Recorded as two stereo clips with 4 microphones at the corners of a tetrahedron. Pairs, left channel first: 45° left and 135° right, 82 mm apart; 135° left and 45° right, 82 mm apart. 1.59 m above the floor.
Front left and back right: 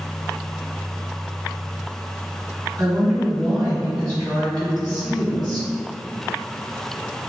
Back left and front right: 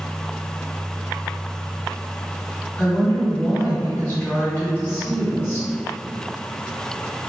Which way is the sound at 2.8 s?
160° right.